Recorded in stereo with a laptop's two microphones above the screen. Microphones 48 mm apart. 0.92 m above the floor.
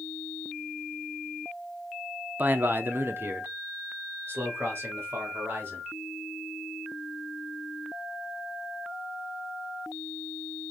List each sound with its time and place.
2.4 s a man speaking: 35° right (ahead or behind), 0.6 m; by 5.9 s 50° right (ahead or behind), 2 m